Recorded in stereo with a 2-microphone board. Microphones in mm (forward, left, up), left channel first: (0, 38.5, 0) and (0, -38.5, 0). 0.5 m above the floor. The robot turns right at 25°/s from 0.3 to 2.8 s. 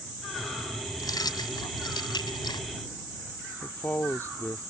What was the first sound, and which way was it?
Keys jangling, 60° left.